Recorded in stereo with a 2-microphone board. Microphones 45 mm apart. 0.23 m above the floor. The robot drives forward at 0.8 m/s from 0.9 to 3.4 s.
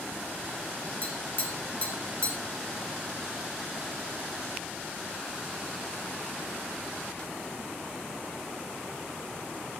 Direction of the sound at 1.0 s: 45° left (ahead or behind).